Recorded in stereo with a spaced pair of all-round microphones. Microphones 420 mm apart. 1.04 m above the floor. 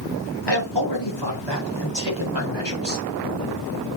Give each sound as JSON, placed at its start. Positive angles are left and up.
{"t": 0.5, "sound": "a man speaking", "side_deg": 75, "distance_m": 4.0}